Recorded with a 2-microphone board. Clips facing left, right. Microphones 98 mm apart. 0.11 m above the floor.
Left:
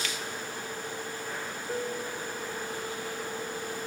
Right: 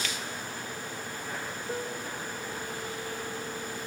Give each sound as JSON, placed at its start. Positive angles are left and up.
{"t": 1.7, "sound": "a piano", "side_deg": -5, "distance_m": 0.9}